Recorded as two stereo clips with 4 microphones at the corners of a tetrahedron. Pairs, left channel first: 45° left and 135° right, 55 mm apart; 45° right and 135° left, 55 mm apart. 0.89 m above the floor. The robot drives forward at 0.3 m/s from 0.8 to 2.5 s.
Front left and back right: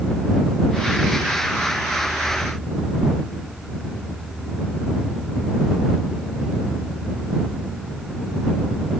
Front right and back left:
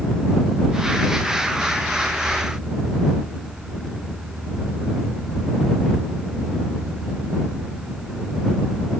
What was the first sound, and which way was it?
Only background noise.